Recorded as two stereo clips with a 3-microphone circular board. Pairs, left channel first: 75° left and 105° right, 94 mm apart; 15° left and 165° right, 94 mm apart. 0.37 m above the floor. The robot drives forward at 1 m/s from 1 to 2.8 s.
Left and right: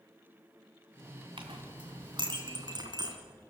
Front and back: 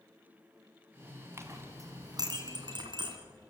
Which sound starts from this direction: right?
A clink, at 1.4 s.